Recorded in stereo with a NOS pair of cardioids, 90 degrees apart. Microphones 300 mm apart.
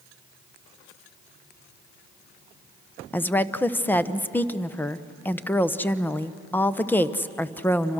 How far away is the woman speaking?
About 0.9 m.